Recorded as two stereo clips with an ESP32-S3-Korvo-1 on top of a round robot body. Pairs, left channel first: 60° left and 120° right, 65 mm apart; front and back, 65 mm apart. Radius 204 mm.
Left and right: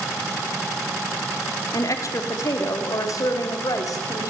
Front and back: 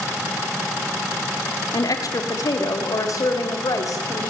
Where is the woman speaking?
25° left, 3 m; by 4.3 s 35° left, 4.5 m.